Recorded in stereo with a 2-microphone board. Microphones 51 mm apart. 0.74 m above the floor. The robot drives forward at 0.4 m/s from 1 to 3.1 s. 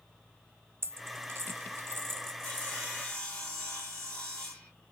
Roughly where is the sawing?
Centre.